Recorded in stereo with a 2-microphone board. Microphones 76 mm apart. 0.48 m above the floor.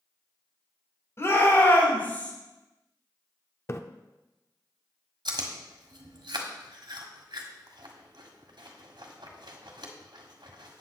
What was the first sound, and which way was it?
A shout, 40° left (ahead or behind).